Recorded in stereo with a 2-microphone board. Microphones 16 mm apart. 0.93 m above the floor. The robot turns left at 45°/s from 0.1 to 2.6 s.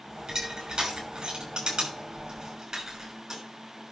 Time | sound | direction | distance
0.3 | crushing | 50° right (ahead or behind) | 6 m